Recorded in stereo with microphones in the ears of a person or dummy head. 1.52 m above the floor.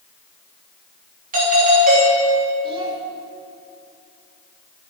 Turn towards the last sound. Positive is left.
turn(degrees=-30)  # may be behind; listen again after turning